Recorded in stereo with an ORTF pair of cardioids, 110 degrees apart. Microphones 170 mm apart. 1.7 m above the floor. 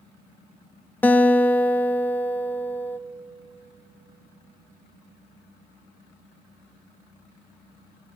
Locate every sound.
1.0 s a guitar: 10° left, 0.6 m